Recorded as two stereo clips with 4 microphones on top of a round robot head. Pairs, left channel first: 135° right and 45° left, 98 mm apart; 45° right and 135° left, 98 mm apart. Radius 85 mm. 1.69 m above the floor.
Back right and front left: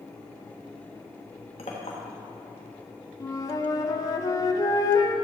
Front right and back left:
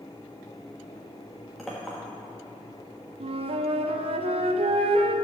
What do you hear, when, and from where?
1.6 s a clink: 130° right, 1.2 m
3.2 s a flute: 165° left, 0.7 m